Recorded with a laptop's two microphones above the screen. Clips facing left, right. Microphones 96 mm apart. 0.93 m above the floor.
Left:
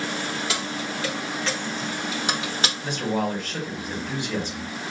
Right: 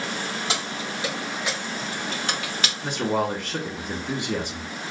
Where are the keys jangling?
30° right (ahead or behind), 1.5 m; by 2.7 s 35° left (ahead or behind), 0.7 m.